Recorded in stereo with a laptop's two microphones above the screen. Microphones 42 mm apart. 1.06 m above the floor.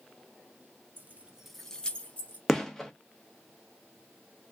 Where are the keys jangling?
50° right (ahead or behind), 0.6 m; by 2.4 s 35° left (ahead or behind), 1.1 m.